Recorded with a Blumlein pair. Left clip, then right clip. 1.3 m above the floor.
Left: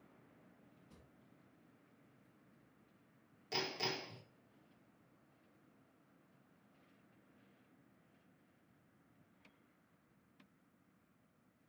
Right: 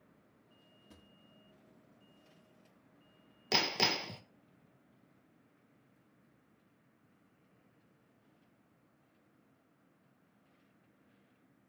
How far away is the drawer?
About 1.6 m.